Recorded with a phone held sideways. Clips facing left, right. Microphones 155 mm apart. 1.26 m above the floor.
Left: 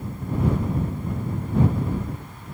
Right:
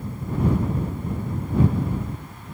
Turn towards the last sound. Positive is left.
No sound to turn to.